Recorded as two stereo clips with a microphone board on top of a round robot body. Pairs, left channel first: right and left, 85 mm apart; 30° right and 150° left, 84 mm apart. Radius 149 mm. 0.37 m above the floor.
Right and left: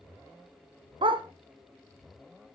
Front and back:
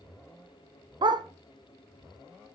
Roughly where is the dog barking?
Behind left.